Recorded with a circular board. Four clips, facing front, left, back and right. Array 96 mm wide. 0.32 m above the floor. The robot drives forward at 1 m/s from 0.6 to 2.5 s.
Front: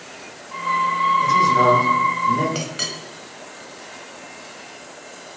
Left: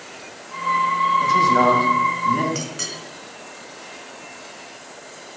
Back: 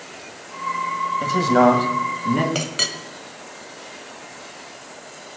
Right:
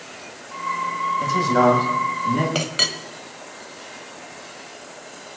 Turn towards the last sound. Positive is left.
turn(degrees=-120)